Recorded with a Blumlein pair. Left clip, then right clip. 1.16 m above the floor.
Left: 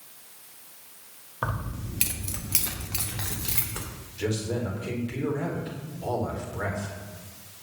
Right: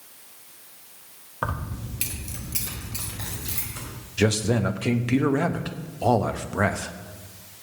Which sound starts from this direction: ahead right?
A man speaking, at 4.2 s.